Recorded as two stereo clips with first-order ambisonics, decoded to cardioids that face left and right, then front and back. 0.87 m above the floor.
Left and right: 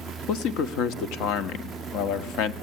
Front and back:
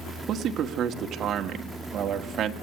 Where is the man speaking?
125° left, 1.4 m.